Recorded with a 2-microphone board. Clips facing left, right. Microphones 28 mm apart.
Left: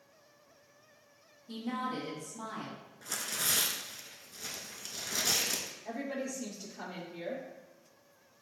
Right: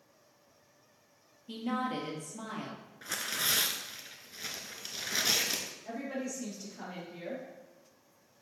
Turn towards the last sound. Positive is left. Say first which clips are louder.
# left 1 dB
turn(degrees=-5)  # may be behind; listen again after turning